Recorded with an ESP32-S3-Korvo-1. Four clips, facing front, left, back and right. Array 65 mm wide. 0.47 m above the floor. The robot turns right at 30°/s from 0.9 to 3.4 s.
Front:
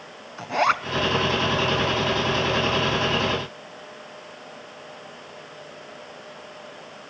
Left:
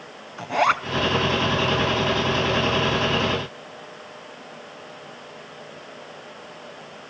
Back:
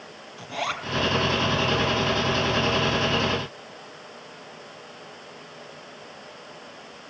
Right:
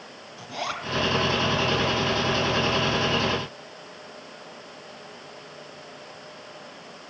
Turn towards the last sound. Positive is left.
turn(degrees=120)